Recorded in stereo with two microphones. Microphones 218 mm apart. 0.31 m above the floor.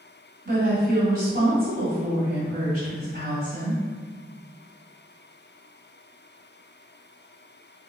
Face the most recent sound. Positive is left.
turn(degrees=-45)  # may be behind; listen again after turning